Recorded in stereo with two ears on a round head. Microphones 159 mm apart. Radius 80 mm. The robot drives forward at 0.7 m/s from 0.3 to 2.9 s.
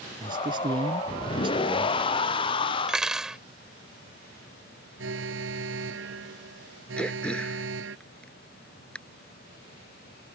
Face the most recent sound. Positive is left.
turn(degrees=5)  # may be behind; listen again after turning